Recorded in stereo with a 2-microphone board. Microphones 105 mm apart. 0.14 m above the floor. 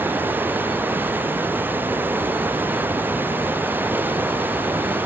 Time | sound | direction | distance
0.0 | running water | 20° right (ahead or behind) | ?